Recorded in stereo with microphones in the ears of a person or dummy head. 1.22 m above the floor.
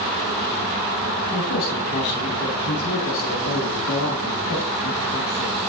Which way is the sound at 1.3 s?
80° left.